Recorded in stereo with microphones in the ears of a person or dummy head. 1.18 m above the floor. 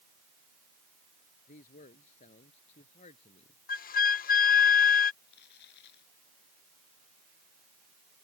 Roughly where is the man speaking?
Left.